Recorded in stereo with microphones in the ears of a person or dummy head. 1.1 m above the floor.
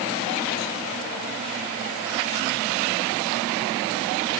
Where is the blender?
I don't hear a blender.